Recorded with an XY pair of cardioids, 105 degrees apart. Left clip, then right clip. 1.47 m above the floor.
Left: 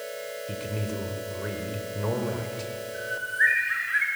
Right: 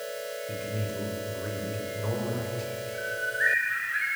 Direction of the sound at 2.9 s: 45° left.